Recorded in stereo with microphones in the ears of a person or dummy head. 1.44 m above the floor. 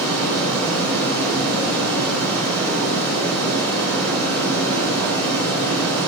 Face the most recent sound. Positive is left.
turn(degrees=15)  # may be behind; listen again after turning